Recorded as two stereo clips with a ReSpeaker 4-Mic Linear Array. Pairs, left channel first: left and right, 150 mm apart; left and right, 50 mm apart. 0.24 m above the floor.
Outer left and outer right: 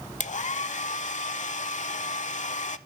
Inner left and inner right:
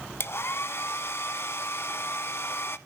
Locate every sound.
0.2 s a hair dryer: 55° left (ahead or behind), 0.5 m